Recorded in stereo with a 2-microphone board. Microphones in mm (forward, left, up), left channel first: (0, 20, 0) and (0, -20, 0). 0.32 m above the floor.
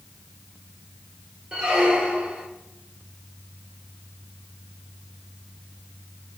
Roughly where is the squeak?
Right.